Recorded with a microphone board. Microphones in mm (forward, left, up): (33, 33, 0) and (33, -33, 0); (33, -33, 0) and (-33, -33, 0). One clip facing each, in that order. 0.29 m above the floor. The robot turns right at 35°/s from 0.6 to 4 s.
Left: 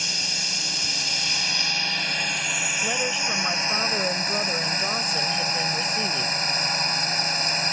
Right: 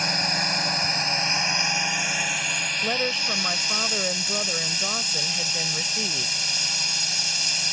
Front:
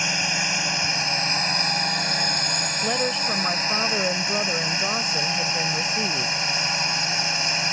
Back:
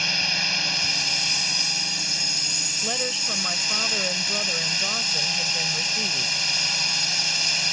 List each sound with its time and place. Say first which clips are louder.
0.0 s a drone: right 7 dB, front 2 dB; 65° right; by 7.7 s 55° left
2.8 s a woman speaking: right 1 dB, front 5 dB; 30° right; by 6.4 s 15° left